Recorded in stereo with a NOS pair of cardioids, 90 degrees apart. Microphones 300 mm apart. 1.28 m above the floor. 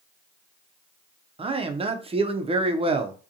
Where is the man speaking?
20° right, 0.5 m.